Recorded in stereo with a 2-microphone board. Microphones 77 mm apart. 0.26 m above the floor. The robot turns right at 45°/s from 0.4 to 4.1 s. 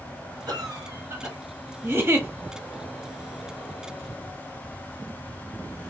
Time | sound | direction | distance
0.5 | a cough | 70° right | 2.5 m
1.8 | a giggle | 30° right (ahead or behind) | 1.2 m